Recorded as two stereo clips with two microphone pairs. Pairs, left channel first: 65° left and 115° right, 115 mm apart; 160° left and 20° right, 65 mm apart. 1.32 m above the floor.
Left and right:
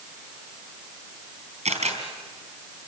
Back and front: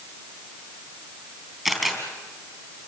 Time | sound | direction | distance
1.6 | a camera shutter | 110° right | 4 m